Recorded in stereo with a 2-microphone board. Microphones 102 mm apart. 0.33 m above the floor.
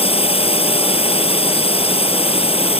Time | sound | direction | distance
0.0 | a drone | 70° left (ahead or behind) | ?